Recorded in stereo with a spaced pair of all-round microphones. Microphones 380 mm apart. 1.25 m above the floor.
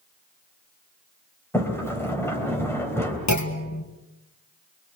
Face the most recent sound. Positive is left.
turn(degrees=45)  # may be behind; listen again after turning